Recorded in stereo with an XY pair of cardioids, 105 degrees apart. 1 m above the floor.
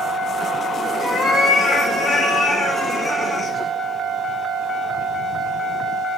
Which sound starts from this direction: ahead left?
A cat meowing, at 1.0 s.